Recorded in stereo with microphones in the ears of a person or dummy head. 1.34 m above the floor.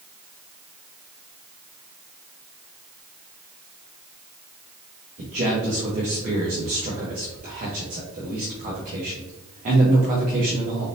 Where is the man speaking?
40° right (ahead or behind), 1.0 m.